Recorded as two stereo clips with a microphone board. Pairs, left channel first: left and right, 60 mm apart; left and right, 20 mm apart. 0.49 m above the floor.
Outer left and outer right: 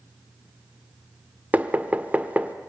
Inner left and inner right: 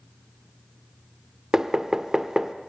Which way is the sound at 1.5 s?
25° right (ahead or behind).